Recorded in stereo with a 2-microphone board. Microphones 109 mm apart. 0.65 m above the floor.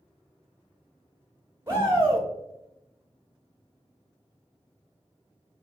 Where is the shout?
25° right (ahead or behind), 0.8 m.